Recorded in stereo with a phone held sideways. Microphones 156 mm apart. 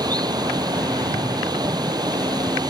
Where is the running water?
25° right (ahead or behind).